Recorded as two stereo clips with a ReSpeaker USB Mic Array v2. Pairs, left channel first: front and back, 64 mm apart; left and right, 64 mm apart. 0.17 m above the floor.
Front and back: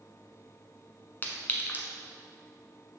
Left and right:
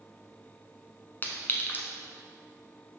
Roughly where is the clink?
Ahead left.